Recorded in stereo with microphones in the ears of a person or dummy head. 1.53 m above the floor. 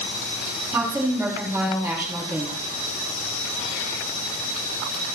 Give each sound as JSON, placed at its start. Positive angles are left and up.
{"t": 0.7, "sound": "a woman speaking", "side_deg": -5, "distance_m": 3.5}